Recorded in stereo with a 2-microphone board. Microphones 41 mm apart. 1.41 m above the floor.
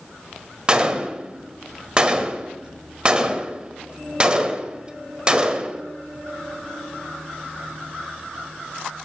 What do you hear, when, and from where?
0.7 s a gunshot: 25° right (ahead or behind), 1.2 m